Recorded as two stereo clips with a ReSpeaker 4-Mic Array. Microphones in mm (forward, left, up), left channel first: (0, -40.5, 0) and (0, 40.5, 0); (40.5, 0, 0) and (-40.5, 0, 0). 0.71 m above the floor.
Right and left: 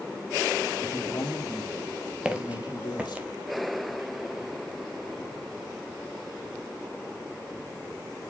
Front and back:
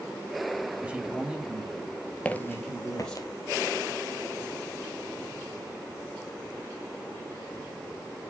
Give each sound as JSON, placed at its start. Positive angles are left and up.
{"t": 0.8, "sound": "a man speaking", "azimuth_deg": -110, "distance_m": 1.7}
{"t": 2.2, "sound": "footsteps", "azimuth_deg": 40, "distance_m": 0.7}